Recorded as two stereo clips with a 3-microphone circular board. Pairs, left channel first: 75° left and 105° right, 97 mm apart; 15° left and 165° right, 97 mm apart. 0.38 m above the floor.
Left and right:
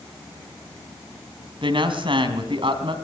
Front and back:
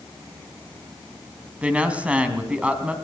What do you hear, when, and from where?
1.6 s a woman speaking: 90° right, 3.5 m